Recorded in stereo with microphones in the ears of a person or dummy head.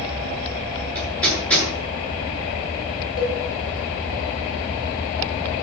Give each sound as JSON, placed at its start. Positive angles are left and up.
{"t": 0.9, "sound": "hammering", "side_deg": 10, "distance_m": 9.0}
{"t": 3.2, "sound": "a cowbell", "side_deg": 20, "distance_m": 4.5}